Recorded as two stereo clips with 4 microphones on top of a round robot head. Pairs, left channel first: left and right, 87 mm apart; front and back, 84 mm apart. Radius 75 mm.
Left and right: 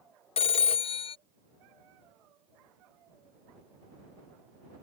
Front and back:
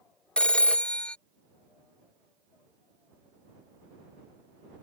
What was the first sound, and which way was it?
A phone ringing, 80° left.